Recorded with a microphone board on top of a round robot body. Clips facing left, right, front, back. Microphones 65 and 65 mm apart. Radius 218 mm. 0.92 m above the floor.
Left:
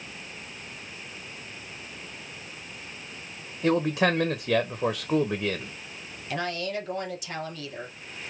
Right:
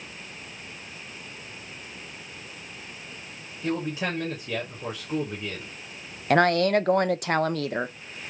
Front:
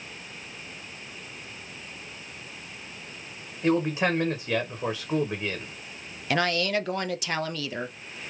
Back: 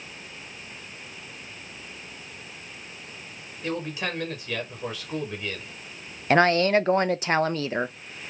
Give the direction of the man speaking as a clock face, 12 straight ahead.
10 o'clock.